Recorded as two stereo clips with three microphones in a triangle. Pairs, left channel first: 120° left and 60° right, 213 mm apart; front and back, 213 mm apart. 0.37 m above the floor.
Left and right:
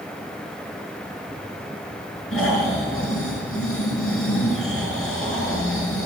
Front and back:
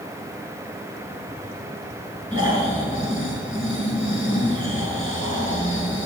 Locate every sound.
2.3 s snoring: 115° left, 5 m